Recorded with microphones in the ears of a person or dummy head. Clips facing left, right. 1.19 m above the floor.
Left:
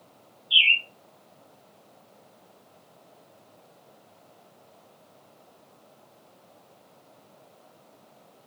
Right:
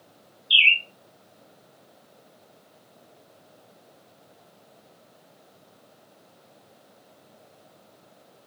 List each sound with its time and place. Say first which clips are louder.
0.5 s a bird: right 3 dB; 55° right (ahead or behind), 0.6 m